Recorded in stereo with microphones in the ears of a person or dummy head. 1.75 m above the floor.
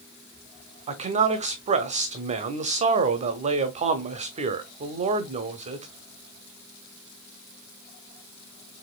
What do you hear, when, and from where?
0.9 s a man speaking: 35° right (ahead or behind), 0.8 m